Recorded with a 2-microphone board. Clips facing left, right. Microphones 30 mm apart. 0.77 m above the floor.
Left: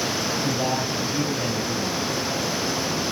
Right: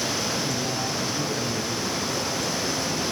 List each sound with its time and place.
0.4 s a man speaking: 75° left (ahead or behind), 4.5 m